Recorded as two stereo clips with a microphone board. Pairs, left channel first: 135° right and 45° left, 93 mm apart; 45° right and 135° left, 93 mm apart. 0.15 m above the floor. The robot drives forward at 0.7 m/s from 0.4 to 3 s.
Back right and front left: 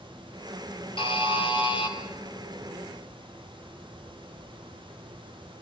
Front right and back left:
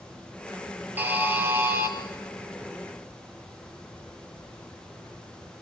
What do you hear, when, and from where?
1.0 s a buzzer: 155° right, 2.5 m; by 1.9 s 160° right, 3 m